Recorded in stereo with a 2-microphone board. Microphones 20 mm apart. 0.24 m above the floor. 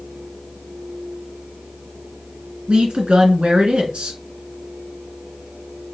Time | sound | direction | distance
2.7 | a woman speaking | 65° right (ahead or behind) | 2.5 m